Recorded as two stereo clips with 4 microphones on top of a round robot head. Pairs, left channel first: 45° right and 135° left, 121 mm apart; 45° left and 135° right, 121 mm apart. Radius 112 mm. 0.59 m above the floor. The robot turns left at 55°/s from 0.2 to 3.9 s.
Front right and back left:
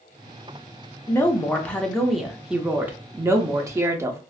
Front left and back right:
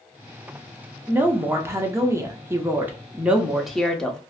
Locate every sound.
1.1 s a woman speaking: 80° right, 0.6 m; by 4.2 s 125° left, 0.6 m